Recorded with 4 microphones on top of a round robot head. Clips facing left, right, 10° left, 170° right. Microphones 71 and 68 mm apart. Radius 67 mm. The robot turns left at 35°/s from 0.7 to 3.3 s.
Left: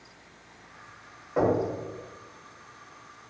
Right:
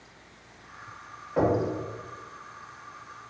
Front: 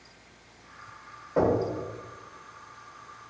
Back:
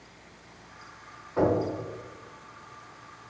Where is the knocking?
15° left, 1.3 m; by 1.6 s 5° left, 1.3 m.